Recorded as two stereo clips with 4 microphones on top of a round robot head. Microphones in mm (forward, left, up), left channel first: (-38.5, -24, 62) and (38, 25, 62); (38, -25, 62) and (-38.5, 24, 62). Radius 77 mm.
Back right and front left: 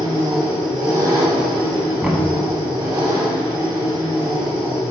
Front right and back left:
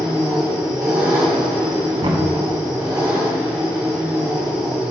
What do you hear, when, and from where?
0.0 s an engine running: 80° left, 2.5 m
2.0 s knocking: 110° left, 1.2 m